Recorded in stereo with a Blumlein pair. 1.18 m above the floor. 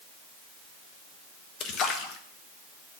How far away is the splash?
About 1.1 m.